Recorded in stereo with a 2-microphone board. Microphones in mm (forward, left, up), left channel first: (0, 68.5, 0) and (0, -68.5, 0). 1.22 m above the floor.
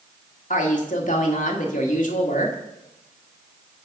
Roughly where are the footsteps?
No footsteps in this recording.